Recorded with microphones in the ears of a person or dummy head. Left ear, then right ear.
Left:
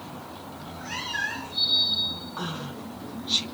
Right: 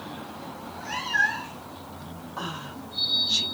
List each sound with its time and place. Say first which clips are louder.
0.6 s a cat meowing: right 1 dB; 20° right (ahead or behind), 4 m
2.4 s a woman speaking: even; 15° right (ahead or behind), 3 m